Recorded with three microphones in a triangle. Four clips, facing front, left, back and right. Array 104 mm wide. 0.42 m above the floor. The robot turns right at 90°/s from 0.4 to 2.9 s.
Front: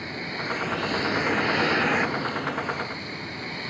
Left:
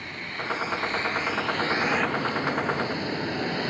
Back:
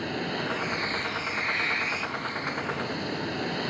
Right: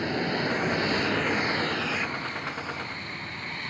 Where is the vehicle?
110° right; by 3.7 s 115° left.